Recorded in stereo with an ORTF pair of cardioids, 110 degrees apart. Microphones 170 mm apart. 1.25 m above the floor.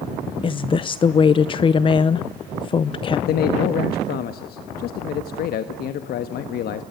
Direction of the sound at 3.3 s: 65° left.